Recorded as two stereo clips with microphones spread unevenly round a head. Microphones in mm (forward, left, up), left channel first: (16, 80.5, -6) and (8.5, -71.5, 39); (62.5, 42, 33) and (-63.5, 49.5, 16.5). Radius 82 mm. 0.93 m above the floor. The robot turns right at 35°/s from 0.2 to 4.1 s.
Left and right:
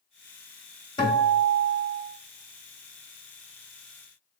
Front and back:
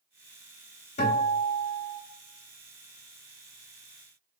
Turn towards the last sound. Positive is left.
turn(degrees=130)